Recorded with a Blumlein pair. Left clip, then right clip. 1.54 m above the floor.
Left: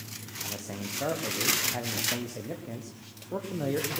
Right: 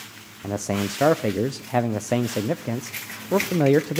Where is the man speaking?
55° right, 0.5 m.